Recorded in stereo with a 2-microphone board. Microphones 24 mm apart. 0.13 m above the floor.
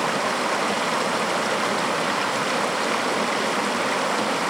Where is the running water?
5° right (ahead or behind).